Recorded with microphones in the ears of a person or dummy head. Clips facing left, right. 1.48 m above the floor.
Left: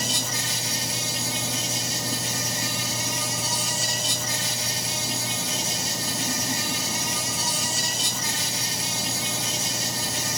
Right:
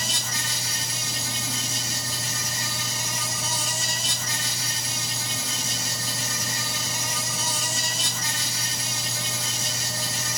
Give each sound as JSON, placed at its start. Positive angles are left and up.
{"t": 0.0, "sound": "an insect", "side_deg": -65, "distance_m": 3.0}